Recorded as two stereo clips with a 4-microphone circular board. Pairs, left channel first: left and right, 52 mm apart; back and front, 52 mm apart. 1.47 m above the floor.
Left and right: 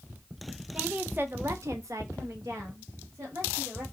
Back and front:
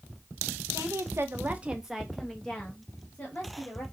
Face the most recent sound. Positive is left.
turn(degrees=-125)